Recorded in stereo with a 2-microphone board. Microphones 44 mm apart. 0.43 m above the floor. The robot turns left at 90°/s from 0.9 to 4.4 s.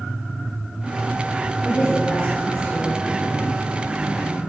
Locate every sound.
1.6 s a woman speaking: straight behind, 2.5 m; by 3.5 s 10° left, 2.5 m